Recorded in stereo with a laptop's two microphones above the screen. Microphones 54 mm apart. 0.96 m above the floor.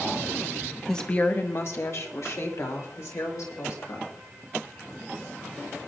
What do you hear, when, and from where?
0.9 s a woman speaking: 5° left (ahead or behind), 0.8 m; by 4.1 s 75° left (ahead or behind), 4.5 m